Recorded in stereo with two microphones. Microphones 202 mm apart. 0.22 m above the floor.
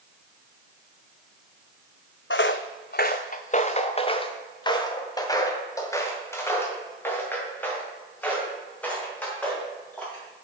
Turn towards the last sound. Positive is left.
turn(degrees=5)  # may be behind; listen again after turning